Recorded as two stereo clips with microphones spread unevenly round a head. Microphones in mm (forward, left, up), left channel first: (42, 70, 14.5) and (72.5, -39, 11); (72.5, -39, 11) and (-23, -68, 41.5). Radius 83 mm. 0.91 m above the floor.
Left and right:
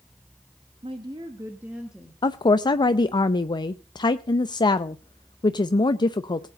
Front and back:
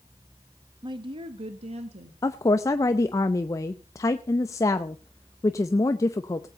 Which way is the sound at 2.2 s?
60° left.